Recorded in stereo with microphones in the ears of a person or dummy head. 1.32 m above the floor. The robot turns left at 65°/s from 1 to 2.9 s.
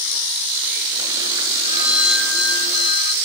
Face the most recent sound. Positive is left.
turn(degrees=125)